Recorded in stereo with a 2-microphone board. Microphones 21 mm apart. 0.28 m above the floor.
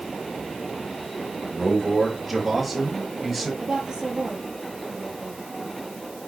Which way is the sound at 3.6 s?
40° right (ahead or behind).